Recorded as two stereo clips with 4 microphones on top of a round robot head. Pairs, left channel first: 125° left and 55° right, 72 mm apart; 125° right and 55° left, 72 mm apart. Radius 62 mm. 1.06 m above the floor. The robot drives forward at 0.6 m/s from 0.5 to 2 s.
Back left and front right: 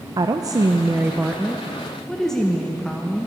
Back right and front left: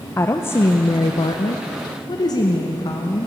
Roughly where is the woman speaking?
Right.